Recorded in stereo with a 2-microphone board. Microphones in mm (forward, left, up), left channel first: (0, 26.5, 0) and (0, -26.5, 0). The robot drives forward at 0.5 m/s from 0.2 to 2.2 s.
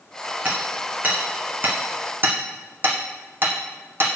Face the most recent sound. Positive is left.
turn(degrees=-45)  # may be behind; listen again after turning